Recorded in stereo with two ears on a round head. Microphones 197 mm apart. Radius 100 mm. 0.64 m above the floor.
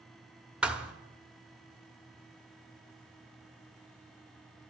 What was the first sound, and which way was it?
A thud, 5° right (ahead or behind).